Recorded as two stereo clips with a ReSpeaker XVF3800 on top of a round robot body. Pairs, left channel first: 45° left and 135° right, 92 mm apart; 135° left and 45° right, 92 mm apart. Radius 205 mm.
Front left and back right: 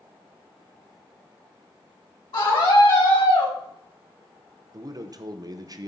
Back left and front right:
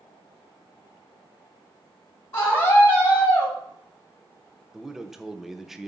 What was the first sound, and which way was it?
A scream, 70° left.